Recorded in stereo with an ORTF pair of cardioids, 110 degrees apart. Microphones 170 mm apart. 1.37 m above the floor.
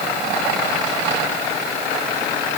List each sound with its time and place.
Only background noise.